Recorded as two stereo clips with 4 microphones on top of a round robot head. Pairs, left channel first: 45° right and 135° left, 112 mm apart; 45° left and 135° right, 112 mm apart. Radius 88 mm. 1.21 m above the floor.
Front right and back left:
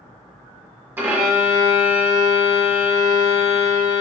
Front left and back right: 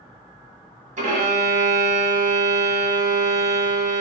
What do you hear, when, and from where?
1.0 s a violin: 155° right, 1.2 m